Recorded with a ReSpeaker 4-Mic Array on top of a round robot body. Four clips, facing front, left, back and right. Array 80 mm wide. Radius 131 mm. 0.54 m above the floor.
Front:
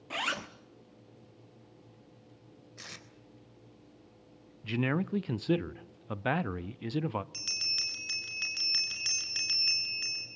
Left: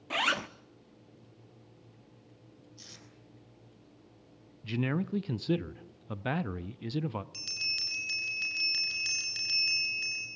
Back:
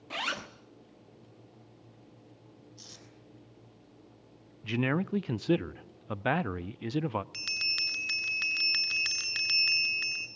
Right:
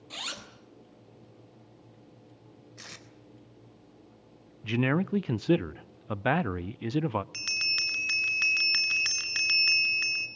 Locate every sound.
0.1 s a zipper: 85° left, 1.1 m
2.8 s tape being pulled: 45° right, 3.5 m
4.6 s a man speaking: 105° right, 0.6 m
7.3 s a bell: 110° right, 1.4 m